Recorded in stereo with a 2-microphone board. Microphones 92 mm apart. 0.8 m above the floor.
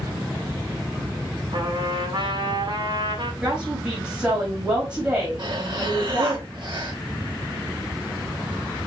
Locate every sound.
1.5 s a trumpet: 65° right (ahead or behind), 2 m
3.4 s a woman speaking: 10° right (ahead or behind), 4 m
5.4 s breathing: 55° right (ahead or behind), 2.0 m